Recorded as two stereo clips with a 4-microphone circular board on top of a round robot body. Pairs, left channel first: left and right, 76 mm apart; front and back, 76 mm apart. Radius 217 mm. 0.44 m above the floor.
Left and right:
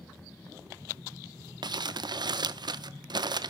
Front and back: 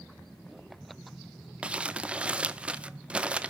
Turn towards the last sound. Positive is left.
turn(degrees=-105)